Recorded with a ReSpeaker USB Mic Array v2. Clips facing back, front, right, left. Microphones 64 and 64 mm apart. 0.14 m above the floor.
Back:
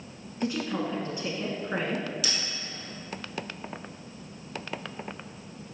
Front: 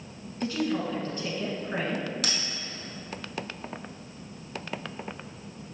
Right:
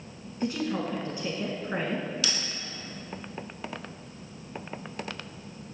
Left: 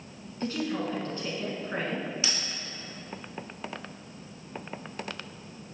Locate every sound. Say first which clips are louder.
0.4 s a woman speaking: front 1 dB, right 1 dB; 145° right, 1.1 m
2.2 s a bell: front 1 dB, right 1 dB; 25° left, 1.4 m